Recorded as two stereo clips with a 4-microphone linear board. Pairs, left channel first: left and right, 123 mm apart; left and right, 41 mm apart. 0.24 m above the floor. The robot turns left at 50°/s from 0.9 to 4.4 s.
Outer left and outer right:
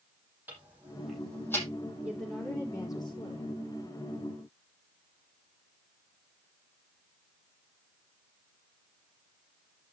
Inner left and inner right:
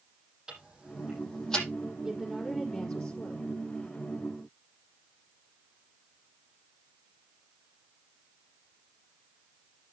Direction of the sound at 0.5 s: 15° right (ahead or behind).